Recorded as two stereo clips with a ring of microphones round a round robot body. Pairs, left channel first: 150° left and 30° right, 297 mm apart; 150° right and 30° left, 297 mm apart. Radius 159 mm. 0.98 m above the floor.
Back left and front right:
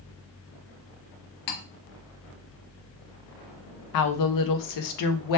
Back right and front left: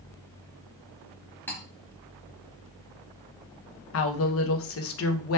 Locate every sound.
1.5 s cutlery clinking: 125° left, 0.6 m
3.9 s a woman speaking: 165° left, 0.6 m